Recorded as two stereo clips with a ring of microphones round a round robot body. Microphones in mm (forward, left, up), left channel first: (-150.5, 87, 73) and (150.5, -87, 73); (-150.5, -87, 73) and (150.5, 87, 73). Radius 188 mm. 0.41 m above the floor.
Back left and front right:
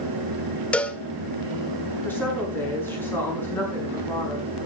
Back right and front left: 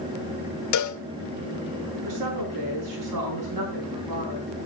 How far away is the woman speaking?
About 6.5 m.